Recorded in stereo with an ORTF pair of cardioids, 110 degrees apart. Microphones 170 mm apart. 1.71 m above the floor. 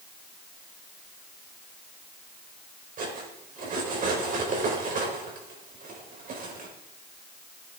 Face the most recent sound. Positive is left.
turn(degrees=-55)